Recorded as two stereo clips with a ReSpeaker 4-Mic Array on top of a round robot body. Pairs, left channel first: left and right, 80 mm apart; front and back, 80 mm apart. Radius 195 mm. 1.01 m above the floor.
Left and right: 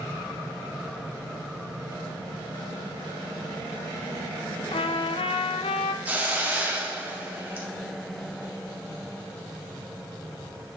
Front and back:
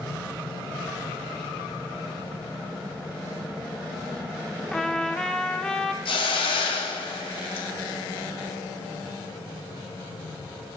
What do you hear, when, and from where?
4.7 s a trumpet: 80° left, 0.5 m
6.0 s a hiss: 20° right, 0.8 m